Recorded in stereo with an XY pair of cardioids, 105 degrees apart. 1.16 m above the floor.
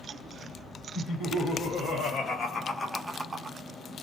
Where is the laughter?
65° left, 1.8 m; by 3.6 s 60° right, 0.6 m.